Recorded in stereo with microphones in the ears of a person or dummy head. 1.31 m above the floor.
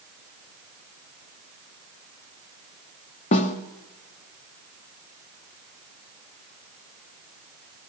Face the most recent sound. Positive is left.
turn(degrees=40)  # may be behind; listen again after turning